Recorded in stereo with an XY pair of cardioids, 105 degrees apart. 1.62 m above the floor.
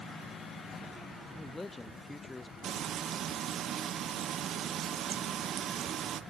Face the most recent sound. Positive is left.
turn(degrees=-60)